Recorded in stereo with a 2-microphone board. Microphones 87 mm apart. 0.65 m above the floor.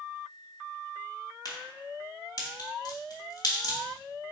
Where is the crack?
50° left (ahead or behind), 1.3 m.